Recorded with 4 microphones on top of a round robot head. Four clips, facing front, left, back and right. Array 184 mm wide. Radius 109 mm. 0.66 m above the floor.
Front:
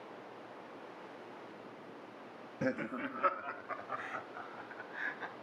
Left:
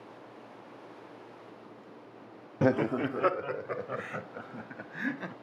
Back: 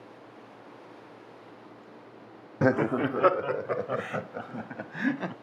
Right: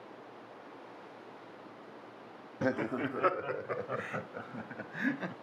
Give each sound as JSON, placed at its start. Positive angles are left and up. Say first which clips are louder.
{"t": 2.6, "sound": "laughter", "louder": "left 6 dB, back 12 dB", "azimuth_deg": 145}